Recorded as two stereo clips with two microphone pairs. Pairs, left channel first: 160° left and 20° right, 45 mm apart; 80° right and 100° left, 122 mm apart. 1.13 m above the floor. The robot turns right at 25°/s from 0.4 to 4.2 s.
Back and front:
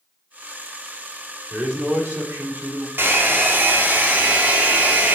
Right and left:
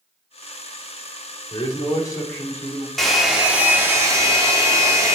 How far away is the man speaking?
About 2.5 m.